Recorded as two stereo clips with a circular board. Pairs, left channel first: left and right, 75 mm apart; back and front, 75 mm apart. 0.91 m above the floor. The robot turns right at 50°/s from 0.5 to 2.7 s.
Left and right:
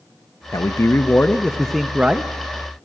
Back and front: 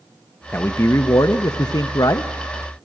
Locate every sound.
0.5 s a man speaking: 120° left, 0.7 m; by 2.3 s 150° right, 0.7 m